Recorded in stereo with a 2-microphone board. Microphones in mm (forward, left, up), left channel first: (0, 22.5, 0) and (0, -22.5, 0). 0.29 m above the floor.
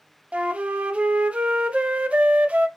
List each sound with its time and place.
0.3 s a flute: 30° right (ahead or behind), 0.5 m